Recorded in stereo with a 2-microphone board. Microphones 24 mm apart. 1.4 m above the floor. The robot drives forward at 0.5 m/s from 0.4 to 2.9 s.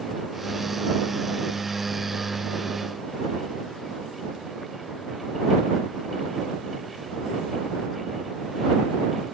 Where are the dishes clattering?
No dishes clattering in this recording.